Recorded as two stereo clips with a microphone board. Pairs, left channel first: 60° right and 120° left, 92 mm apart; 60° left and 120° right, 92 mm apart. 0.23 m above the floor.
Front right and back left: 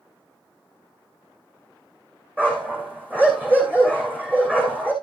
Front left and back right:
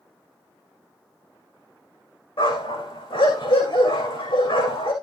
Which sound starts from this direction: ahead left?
A dog barking, at 2.4 s.